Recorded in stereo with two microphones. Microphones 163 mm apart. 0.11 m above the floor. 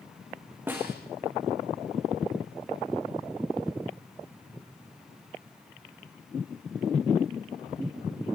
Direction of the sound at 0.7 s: 15° right (ahead or behind).